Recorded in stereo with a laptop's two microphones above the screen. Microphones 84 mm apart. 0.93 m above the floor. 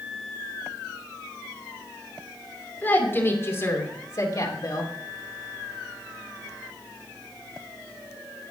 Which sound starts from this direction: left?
A woman speaking, at 2.8 s.